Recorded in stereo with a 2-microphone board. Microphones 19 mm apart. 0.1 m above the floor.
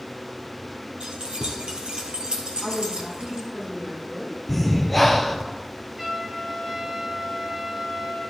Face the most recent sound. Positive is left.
turn(degrees=-25)  # may be behind; listen again after turning